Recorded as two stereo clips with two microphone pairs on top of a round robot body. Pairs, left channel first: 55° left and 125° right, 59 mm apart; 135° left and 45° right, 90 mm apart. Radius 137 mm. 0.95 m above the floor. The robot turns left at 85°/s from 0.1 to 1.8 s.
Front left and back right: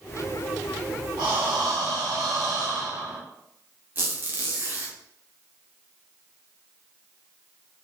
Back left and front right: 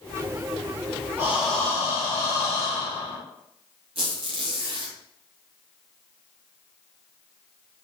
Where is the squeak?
75° right, 0.6 m.